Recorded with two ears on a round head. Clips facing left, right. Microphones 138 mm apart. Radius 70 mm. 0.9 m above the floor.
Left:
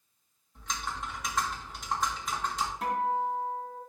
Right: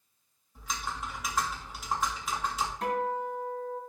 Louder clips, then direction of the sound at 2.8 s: Left 2 dB; 5° left (ahead or behind).